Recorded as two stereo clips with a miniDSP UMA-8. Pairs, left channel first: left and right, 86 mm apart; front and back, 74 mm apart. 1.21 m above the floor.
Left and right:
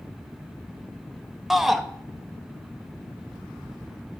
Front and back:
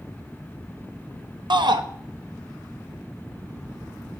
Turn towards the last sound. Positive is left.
turn(degrees=180)